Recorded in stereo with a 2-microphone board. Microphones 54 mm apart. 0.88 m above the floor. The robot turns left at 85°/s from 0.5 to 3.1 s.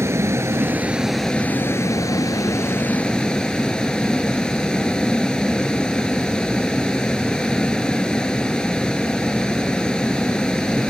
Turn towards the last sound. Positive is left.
turn(degrees=15)